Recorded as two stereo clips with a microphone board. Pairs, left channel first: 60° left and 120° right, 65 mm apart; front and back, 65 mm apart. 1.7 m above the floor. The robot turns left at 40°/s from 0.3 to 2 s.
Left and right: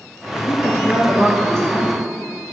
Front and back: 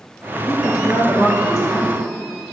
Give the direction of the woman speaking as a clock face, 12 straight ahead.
11 o'clock.